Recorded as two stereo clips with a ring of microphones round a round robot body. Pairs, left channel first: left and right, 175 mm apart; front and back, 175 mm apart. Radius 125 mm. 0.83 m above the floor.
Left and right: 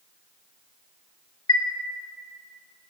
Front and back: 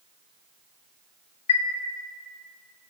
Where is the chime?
35° left, 0.6 m.